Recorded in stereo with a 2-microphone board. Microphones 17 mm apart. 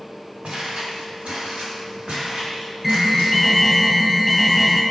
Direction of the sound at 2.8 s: 10° right (ahead or behind).